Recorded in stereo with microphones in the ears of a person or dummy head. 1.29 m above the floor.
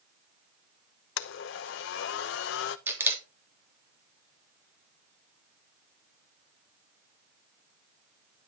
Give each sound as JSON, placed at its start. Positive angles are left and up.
{"t": 1.2, "sound": "a blender", "side_deg": 65, "distance_m": 0.7}
{"t": 2.9, "sound": "a camera shutter", "side_deg": -15, "distance_m": 3.0}